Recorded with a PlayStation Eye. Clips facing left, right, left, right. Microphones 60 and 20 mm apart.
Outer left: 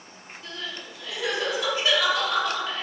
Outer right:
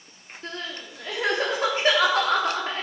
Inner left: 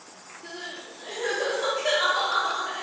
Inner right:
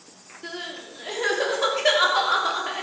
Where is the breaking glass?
No breaking glass in this recording.